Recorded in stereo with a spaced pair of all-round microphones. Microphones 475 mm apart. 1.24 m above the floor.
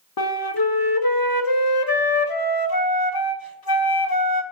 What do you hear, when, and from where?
0.2 s a flute: 50° left (ahead or behind), 0.7 m